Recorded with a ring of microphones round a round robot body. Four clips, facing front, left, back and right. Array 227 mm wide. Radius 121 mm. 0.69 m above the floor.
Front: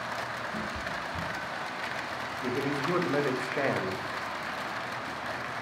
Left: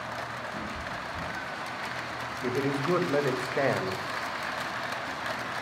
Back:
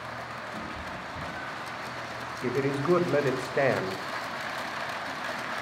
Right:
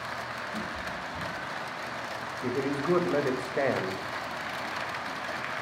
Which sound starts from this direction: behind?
A man speaking, at 2.4 s.